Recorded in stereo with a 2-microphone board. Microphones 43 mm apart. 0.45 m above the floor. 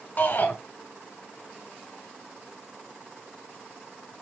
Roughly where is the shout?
Left.